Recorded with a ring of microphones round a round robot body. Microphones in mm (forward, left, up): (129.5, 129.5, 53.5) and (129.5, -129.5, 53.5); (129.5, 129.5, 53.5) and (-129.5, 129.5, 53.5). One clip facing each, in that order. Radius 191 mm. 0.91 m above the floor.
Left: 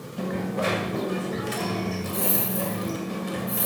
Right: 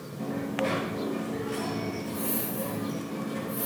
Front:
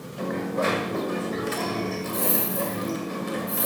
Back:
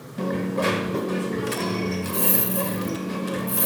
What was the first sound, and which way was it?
A dropped coin, 130° left.